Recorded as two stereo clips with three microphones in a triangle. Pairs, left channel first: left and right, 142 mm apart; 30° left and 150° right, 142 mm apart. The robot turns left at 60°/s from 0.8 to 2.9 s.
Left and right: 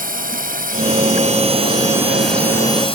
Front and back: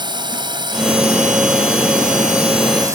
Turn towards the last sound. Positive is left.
turn(degrees=140)